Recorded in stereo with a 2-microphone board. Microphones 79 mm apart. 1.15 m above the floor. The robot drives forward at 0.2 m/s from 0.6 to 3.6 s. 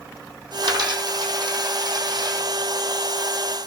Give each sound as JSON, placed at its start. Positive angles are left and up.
{"t": 0.6, "sound": "a dropped coin", "side_deg": -60, "distance_m": 3.5}